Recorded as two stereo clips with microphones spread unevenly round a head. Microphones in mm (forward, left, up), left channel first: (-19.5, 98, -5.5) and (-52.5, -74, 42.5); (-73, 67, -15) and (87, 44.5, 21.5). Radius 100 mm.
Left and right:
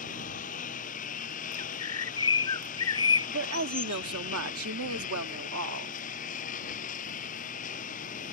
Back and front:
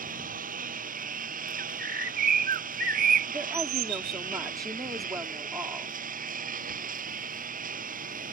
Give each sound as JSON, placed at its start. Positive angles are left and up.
{"t": 0.0, "sound": "a lawn mower", "azimuth_deg": 25}
{"t": 1.6, "sound": "a bird", "azimuth_deg": 5}
{"t": 3.3, "sound": "a woman speaking", "azimuth_deg": -85}